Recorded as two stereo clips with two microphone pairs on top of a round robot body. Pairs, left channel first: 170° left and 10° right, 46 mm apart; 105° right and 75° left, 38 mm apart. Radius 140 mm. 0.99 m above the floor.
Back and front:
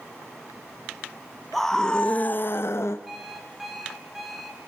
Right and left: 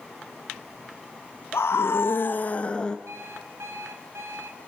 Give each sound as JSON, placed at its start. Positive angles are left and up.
{"t": 1.5, "sound": "a scream", "azimuth_deg": -110, "distance_m": 1.1}
{"t": 3.1, "sound": "an alarm clock", "azimuth_deg": 70, "distance_m": 2.5}